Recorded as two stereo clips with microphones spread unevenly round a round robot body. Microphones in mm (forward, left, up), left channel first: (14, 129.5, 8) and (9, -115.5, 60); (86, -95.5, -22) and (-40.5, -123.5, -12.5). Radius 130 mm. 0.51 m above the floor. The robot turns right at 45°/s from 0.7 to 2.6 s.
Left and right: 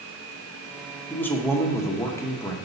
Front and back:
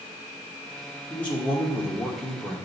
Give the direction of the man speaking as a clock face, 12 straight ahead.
10 o'clock.